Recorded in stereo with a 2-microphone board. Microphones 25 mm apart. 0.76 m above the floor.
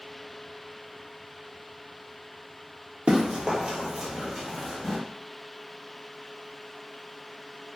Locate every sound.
3.1 s running footsteps: 50° right (ahead or behind), 1.1 m; by 5.0 s 10° right (ahead or behind), 1.3 m